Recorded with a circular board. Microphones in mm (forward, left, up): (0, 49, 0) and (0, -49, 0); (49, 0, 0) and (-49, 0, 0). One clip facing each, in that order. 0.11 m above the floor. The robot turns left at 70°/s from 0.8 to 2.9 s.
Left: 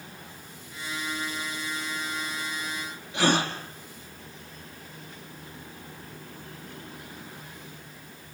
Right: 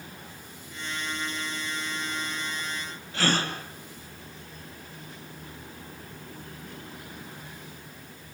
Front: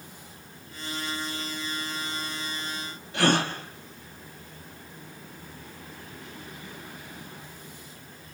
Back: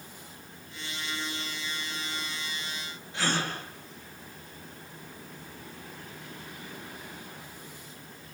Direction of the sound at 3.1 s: 15° left.